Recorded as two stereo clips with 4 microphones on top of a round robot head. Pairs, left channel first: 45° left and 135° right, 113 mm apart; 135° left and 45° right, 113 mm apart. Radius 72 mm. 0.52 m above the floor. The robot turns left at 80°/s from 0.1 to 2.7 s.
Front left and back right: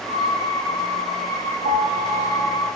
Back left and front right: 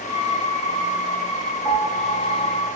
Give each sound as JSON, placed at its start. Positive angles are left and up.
{"t": 1.6, "sound": "a piano", "azimuth_deg": -150, "distance_m": 0.5}